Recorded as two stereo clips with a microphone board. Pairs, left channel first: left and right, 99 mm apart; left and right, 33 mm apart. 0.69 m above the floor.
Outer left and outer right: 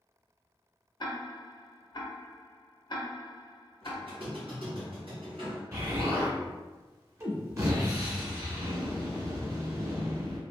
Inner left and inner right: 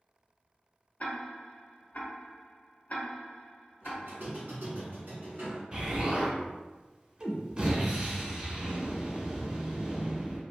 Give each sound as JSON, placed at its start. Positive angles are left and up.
{"t": 1.0, "sound": "ticking", "side_deg": 45, "distance_m": 0.6}
{"t": 3.8, "sound": "a squeak", "side_deg": -75, "distance_m": 1.6}
{"t": 5.7, "sound": "an explosion", "side_deg": -30, "distance_m": 1.1}